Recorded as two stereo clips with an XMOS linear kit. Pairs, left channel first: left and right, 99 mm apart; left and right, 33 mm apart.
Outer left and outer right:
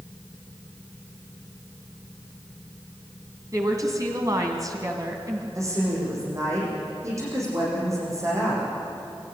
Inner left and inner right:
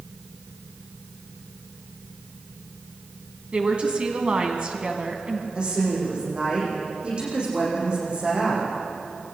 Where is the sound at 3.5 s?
40° right (ahead or behind), 2 m.